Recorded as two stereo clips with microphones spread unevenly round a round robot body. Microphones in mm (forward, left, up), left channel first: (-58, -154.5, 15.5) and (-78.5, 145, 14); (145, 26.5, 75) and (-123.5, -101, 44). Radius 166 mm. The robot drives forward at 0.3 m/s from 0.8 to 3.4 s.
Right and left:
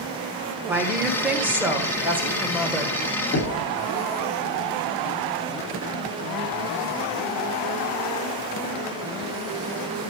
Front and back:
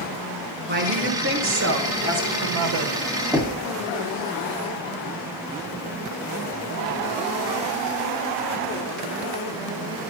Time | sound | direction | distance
0.7 | a woman speaking | 175° left | 1.0 m
3.3 | knocking | 80° right | 0.9 m